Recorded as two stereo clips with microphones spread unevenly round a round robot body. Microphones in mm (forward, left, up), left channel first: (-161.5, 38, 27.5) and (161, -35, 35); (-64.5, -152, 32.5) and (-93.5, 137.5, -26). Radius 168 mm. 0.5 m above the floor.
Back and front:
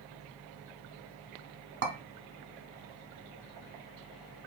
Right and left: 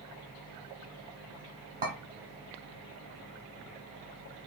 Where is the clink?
40° left, 0.8 m.